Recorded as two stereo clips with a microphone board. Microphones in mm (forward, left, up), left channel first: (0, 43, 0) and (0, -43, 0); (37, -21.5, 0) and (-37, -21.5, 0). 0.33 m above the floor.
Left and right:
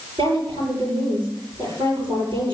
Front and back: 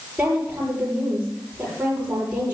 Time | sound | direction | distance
0.2 | a woman speaking | 105° right | 8 m